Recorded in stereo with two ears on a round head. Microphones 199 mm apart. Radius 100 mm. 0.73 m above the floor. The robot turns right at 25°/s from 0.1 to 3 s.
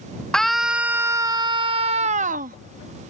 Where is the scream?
175° left; by 2.6 s 130° right.